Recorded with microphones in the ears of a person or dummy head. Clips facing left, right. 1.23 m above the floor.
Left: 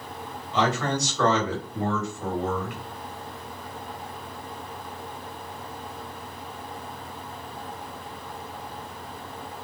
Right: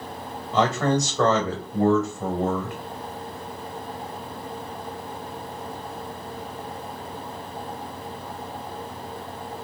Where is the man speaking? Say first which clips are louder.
Right 4 dB; 30° right (ahead or behind), 1.0 m.